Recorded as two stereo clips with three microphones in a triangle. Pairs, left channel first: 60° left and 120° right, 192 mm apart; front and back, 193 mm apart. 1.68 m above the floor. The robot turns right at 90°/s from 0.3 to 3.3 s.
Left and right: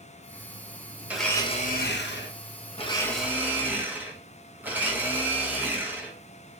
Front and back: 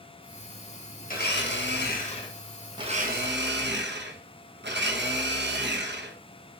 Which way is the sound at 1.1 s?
40° right.